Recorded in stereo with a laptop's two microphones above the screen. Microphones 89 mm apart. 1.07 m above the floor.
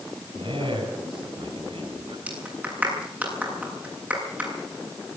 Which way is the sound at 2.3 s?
20° right (ahead or behind).